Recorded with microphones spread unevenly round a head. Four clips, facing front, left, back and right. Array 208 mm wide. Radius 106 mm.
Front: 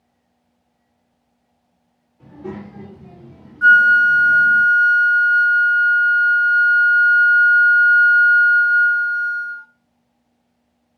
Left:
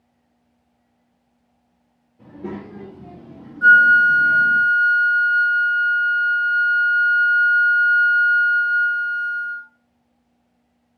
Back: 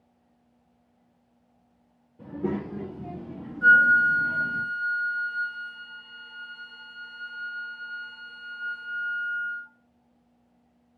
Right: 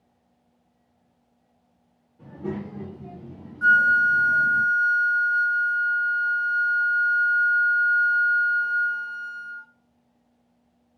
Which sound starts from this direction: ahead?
A flute, at 3.6 s.